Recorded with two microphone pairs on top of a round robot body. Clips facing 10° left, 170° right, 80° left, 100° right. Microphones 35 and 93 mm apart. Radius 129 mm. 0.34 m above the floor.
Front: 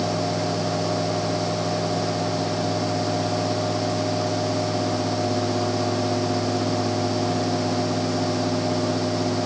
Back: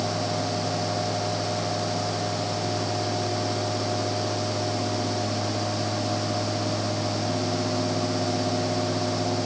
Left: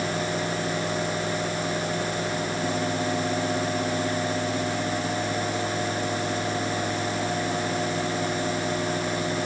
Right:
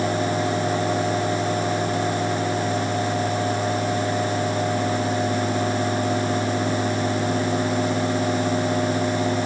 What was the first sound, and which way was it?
Only background noise.